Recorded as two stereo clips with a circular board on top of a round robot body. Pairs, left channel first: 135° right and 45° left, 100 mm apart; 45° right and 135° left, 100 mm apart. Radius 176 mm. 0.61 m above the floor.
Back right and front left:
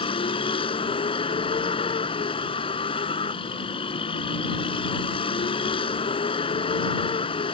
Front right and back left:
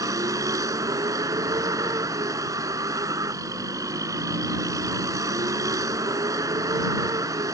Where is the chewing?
I don't hear chewing.